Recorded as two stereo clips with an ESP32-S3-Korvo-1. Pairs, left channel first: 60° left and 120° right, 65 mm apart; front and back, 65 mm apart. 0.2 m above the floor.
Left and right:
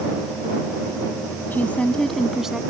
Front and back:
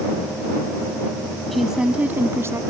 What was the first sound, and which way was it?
A woman speaking, 85° left.